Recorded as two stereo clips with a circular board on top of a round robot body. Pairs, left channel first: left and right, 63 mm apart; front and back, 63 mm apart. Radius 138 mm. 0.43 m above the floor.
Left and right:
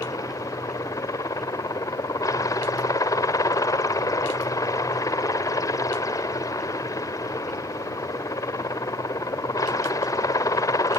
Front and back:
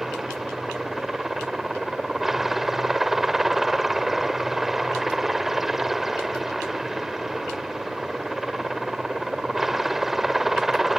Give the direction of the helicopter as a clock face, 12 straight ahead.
9 o'clock.